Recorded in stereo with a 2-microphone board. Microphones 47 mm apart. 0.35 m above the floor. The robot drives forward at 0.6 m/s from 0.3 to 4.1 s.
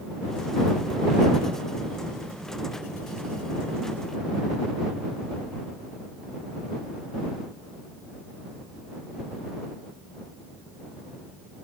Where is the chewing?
No chewing in this recording.